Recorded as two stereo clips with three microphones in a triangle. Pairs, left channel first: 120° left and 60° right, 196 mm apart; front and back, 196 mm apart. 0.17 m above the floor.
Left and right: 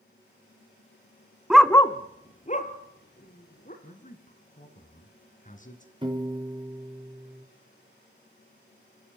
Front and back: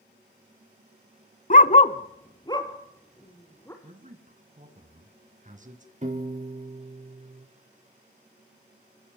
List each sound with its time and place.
1.5 s a dog barking: 20° left, 0.6 m; by 3.7 s 75° left, 3 m
3.8 s a man speaking: 150° left, 2 m
6.0 s a piano: 125° right, 3.5 m